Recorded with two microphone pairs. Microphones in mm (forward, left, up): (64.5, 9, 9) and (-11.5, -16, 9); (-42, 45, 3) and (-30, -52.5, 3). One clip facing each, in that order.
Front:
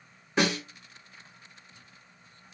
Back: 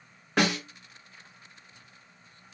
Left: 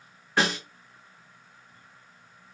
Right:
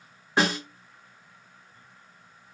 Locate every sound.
0.4 s a snare drum: 150° right, 1.9 m